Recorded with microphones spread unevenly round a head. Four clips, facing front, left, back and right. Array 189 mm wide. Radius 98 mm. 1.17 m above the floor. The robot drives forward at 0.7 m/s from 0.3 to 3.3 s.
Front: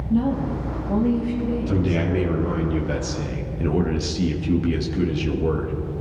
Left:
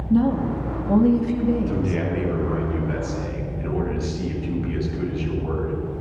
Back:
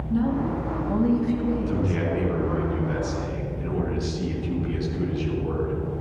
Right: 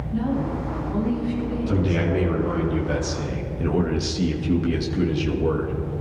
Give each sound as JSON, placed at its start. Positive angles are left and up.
{"t": 0.1, "sound": "a woman speaking", "azimuth_deg": 70, "distance_m": 2.5}
{"t": 1.7, "sound": "a man speaking", "azimuth_deg": -15, "distance_m": 2.5}